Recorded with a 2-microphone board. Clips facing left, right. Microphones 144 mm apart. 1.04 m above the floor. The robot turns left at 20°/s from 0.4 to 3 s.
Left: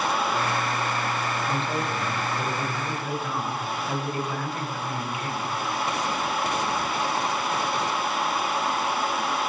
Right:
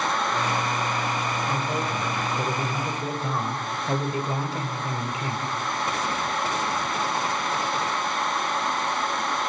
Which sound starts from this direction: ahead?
A man speaking, at 1.5 s.